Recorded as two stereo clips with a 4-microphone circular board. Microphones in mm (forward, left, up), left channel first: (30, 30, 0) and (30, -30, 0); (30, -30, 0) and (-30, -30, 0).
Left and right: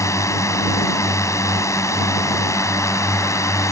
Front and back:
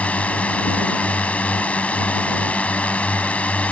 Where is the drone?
65° left.